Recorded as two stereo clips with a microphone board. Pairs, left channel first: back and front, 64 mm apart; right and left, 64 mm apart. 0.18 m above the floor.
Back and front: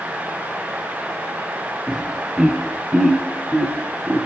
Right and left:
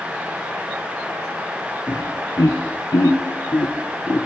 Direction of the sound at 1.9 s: 80° right.